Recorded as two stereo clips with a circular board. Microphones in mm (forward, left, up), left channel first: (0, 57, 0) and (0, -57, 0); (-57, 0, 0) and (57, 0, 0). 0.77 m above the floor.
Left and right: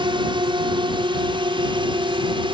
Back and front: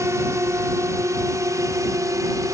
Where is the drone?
60° right; by 2.6 s 55° right.